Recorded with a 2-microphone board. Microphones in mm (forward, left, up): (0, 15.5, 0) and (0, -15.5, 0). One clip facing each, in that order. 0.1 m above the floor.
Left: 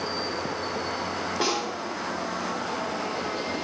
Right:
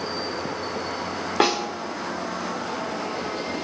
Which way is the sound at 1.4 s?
65° right (ahead or behind).